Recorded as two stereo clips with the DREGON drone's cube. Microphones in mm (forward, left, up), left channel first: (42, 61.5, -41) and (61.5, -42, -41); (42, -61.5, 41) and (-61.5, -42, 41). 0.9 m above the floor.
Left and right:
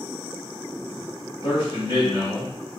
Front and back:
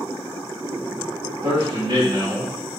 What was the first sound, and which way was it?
A man speaking, 135° left.